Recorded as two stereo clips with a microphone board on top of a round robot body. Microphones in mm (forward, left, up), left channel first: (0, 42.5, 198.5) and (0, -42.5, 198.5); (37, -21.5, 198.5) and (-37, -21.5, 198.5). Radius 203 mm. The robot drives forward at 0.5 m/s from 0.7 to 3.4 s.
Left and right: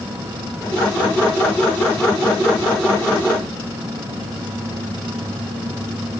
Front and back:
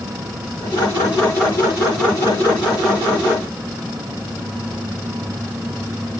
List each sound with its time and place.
Only background noise.